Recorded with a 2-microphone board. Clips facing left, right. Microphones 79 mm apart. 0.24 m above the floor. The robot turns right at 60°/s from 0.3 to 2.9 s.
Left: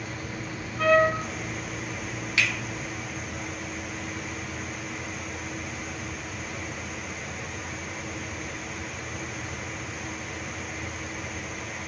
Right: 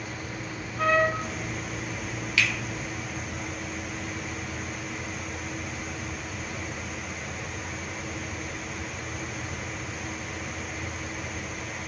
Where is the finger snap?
25° left (ahead or behind), 0.7 m.